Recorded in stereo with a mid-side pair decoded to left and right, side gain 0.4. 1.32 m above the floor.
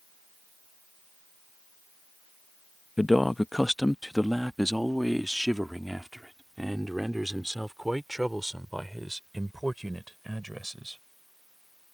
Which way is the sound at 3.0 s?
15° left.